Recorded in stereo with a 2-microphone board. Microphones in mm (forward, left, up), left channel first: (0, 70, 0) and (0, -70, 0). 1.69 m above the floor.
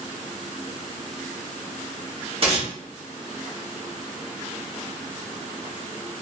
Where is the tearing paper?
45° right (ahead or behind), 0.9 m.